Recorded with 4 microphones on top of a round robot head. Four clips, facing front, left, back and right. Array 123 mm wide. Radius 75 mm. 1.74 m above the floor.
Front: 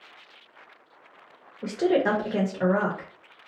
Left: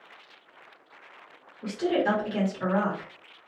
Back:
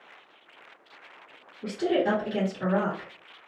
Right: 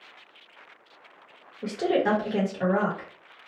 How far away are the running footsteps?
No running footsteps in this recording.